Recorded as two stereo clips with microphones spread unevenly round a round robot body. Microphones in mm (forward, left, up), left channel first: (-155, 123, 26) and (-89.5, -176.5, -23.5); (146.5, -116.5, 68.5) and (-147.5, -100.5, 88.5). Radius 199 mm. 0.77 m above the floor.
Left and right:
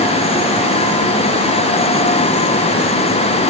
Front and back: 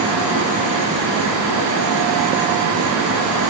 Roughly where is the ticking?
I don't hear ticking.